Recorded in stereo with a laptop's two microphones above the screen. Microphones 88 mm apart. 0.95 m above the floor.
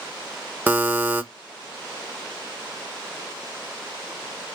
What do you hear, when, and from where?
0.7 s a buzzer: 20° right (ahead or behind), 0.7 m